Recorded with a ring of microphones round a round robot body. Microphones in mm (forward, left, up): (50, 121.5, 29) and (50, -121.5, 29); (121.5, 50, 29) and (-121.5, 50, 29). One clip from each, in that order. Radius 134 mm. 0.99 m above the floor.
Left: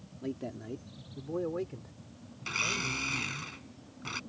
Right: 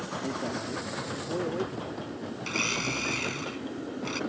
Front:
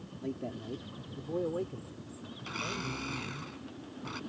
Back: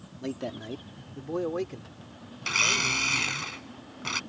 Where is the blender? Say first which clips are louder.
Right 2 dB, back 14 dB; 175° right.